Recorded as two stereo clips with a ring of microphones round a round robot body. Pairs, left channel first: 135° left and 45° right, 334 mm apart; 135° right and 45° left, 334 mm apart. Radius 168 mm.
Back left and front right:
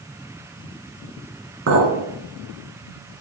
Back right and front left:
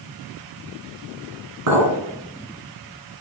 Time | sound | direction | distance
1.7 | a clink | 5° left | 3 m